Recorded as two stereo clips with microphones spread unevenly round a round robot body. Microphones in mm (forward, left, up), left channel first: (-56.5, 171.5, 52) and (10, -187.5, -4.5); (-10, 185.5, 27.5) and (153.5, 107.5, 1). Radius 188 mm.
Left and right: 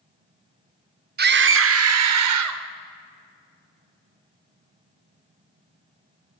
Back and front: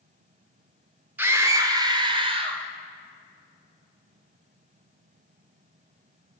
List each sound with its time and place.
1.2 s a scream: 85° right, 1.0 m; by 2.6 s 80° right, 1.6 m